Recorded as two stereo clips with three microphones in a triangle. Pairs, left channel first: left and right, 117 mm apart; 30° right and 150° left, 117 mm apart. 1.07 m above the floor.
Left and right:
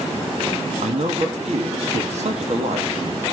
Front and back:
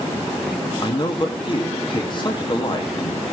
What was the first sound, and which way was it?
A man speaking, 75° right.